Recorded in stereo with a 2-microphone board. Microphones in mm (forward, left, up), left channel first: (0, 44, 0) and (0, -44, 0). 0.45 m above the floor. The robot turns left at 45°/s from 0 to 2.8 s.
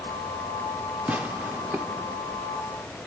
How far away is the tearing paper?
About 0.7 m.